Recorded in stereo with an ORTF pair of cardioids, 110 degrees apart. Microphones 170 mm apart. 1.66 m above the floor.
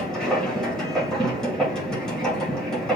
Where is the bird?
No bird in this recording.